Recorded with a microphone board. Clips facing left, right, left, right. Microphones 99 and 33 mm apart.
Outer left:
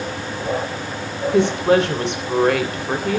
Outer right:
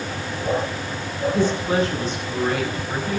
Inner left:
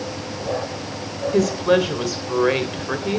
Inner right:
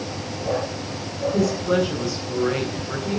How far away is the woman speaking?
About 3.5 m.